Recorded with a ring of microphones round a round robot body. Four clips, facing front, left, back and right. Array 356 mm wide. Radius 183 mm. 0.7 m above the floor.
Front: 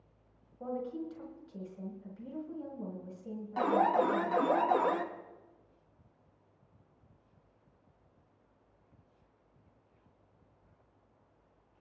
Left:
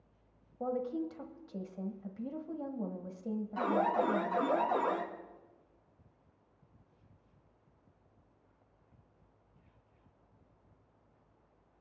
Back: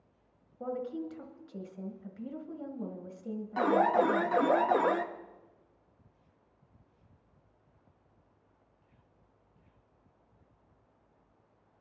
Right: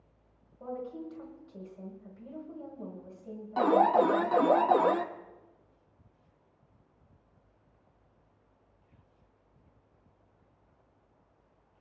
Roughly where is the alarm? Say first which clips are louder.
Right 8 dB, back 2 dB; right.